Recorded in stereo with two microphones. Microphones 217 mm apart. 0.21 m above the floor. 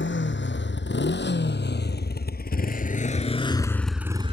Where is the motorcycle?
60° left (ahead or behind); by 4.3 s 30° right (ahead or behind).